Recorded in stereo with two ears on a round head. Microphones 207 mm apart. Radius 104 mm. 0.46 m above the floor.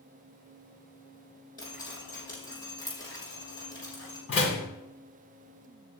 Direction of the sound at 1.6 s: 15° left (ahead or behind).